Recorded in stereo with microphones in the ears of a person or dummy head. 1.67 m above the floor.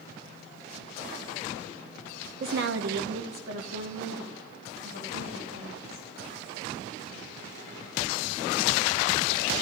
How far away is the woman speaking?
About 0.5 m.